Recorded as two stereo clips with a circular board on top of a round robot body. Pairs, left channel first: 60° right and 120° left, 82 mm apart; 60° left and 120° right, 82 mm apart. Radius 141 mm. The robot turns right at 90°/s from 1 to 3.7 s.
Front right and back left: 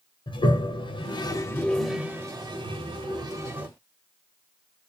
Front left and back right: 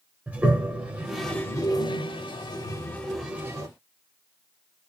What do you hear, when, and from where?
0.3 s a toilet flushing: 45° right, 1.1 m; by 3.7 s 165° right, 1.1 m